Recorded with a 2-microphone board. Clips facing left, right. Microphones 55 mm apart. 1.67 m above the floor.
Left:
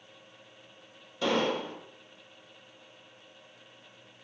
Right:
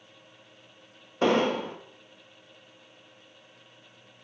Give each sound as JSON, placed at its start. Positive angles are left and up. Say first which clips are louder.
{"t": 1.2, "sound": "an explosion", "louder": "right 4 dB", "side_deg": -40, "distance_m": 1.1}